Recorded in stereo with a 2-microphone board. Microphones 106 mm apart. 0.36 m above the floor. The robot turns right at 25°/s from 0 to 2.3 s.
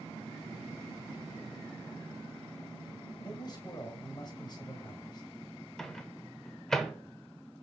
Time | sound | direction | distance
3.2 | a man speaking | 40° left (ahead or behind) | 1.5 m
5.8 | a microwave | 5° left (ahead or behind) | 0.8 m